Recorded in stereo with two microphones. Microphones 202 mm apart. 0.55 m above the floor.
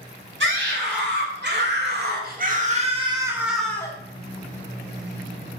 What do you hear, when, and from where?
0.4 s a scream: 70° right (ahead or behind), 3 m; by 4.0 s 15° left (ahead or behind), 1.1 m